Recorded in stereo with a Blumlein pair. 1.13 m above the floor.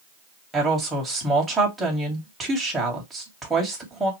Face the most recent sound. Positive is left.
turn(degrees=-10)